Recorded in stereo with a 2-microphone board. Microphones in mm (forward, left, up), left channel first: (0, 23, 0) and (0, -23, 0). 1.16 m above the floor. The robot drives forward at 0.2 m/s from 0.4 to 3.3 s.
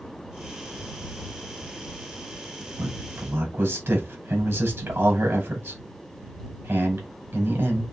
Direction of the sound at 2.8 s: 65° right (ahead or behind).